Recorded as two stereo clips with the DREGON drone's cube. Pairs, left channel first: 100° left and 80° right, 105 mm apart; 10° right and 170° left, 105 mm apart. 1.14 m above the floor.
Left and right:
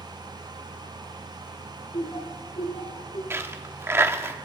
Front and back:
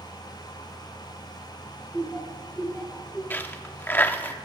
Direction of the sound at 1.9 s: 75° left.